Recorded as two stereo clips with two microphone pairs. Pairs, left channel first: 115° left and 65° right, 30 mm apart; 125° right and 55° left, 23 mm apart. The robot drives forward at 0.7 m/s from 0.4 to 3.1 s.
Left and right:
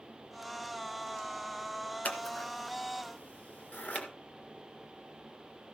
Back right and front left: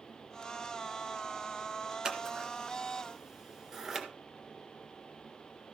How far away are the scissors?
About 1.8 m.